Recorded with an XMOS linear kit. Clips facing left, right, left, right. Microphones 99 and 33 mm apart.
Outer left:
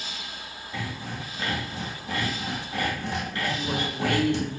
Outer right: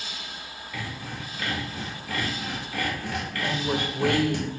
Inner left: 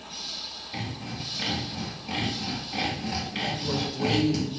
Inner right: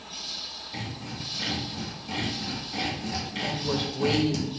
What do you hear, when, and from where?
0.7 s sawing: 25° left (ahead or behind), 2.5 m
3.4 s a woman speaking: 20° right (ahead or behind), 1.1 m